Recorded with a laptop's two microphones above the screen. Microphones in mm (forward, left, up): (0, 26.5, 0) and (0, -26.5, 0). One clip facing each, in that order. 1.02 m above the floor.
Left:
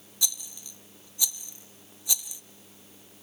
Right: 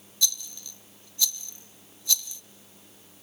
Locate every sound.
0.2 s a rattle: 15° left (ahead or behind), 0.7 m